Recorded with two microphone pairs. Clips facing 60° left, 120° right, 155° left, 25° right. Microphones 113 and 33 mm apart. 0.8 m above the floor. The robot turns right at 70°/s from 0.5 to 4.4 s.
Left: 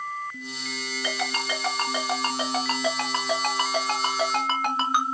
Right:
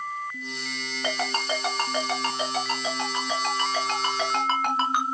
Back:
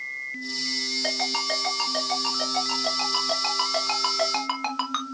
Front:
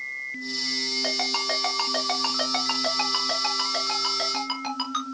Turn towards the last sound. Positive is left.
turn(degrees=150)